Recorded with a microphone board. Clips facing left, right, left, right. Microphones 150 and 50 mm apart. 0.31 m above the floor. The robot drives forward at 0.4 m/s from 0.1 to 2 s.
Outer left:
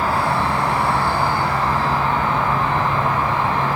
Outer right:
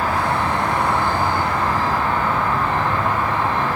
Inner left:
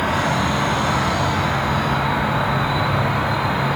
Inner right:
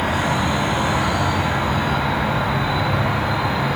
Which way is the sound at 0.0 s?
35° left (ahead or behind).